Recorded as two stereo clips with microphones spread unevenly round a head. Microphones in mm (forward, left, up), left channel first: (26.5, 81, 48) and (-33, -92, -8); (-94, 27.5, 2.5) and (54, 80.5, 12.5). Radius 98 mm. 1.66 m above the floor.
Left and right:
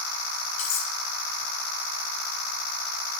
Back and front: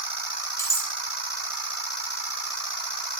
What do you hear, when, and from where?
0.6 s cutlery clinking: 130° left, 4.5 m